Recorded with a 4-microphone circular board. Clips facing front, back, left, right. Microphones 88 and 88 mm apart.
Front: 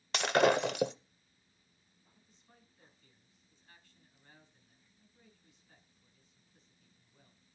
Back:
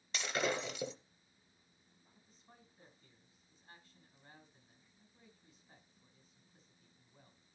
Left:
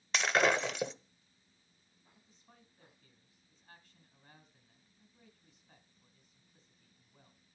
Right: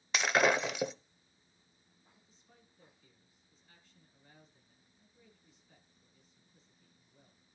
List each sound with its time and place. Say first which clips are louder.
0.1 s breaking glass: front 10 dB, right 1 dB; 5° right, 0.7 m
2.1 s a man speaking: back 2 dB, left 3 dB; 135° left, 4 m